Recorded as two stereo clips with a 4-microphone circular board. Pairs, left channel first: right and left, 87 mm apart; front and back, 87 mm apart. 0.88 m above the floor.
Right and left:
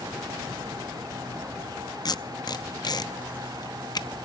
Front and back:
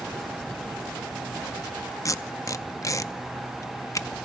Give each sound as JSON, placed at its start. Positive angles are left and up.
{"t": 2.0, "sound": "tape being pulled", "azimuth_deg": -50, "distance_m": 0.6}